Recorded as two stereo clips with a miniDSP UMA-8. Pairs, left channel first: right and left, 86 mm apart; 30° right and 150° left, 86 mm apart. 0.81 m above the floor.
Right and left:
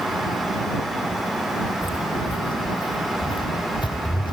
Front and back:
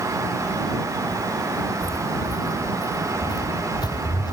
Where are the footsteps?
75° right; by 4.3 s 65° right.